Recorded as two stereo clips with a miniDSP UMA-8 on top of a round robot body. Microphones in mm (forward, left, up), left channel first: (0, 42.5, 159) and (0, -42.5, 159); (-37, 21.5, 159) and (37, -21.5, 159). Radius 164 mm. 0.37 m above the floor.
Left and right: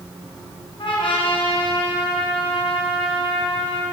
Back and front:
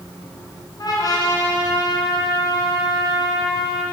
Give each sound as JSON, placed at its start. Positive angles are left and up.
{"t": 0.8, "sound": "a trumpet", "azimuth_deg": 105, "distance_m": 3.0}